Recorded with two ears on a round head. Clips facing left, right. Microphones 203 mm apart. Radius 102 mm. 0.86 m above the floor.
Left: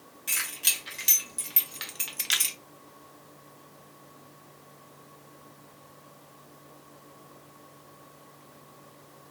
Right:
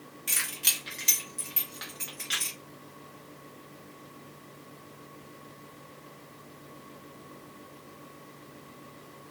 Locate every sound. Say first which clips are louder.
0.3 s keys jangling: left 1 dB; 5° right (ahead or behind), 1.3 m; by 2.5 s 70° left (ahead or behind), 0.7 m